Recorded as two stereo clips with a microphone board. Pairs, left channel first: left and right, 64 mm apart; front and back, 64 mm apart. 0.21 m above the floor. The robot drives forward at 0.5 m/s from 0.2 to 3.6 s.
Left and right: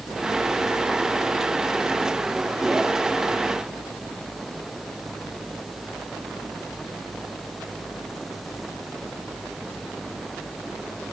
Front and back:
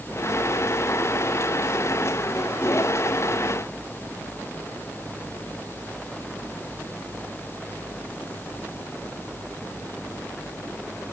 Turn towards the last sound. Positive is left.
No sound to turn to.